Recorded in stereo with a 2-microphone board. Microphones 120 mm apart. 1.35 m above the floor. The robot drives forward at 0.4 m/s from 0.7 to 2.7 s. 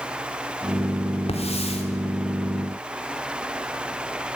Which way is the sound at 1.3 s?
60° left (ahead or behind).